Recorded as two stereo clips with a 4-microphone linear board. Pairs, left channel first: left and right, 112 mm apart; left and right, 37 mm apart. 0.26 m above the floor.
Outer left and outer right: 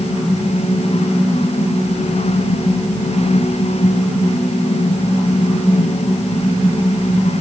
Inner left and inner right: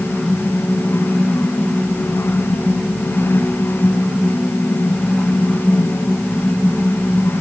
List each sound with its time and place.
Only background noise.